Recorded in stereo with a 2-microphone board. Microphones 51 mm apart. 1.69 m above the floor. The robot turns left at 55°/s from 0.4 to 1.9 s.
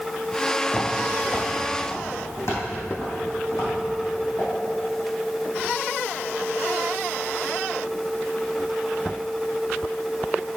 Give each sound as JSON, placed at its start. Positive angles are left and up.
{"t": 0.7, "sound": "footsteps", "side_deg": 25, "distance_m": 2.0}